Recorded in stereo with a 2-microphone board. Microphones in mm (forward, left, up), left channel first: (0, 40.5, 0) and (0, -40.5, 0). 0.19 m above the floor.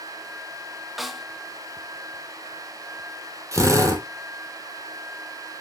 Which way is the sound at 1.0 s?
Centre (ahead or behind).